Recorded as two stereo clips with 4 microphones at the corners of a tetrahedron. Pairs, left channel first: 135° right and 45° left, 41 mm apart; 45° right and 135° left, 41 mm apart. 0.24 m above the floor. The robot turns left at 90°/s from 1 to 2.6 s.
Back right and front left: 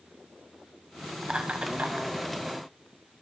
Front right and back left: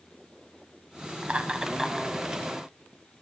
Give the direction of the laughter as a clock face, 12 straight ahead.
8 o'clock.